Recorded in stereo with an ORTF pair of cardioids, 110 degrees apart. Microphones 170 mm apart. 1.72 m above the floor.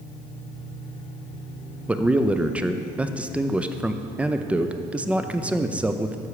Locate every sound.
1.9 s a man speaking: 10° right, 0.6 m